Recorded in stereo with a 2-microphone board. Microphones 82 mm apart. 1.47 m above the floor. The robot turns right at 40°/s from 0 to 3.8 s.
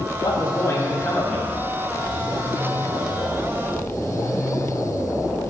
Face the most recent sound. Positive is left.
turn(degrees=-90)